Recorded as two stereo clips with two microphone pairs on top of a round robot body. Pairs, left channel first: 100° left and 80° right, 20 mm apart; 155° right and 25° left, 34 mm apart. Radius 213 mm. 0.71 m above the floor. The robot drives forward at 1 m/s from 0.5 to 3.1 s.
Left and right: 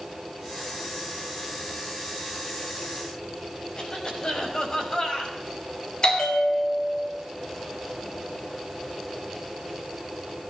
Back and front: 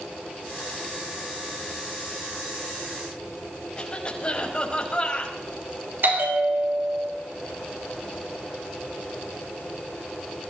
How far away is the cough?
About 5 m.